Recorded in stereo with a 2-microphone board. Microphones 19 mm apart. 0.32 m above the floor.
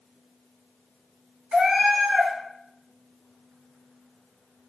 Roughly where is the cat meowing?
Right.